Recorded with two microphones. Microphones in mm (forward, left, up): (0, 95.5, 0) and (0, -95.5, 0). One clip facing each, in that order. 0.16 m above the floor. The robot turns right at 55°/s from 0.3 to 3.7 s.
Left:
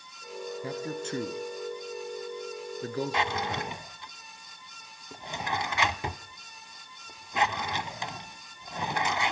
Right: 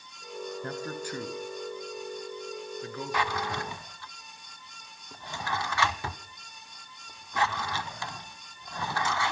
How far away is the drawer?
About 0.5 m.